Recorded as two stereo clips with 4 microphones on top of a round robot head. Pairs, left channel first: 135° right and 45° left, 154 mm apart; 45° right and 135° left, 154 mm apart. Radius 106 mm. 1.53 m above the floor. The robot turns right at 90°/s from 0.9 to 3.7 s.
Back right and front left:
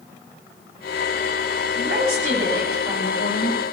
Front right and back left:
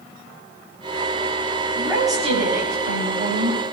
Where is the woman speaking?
40° left, 9 m; by 3.6 s 155° right, 9 m.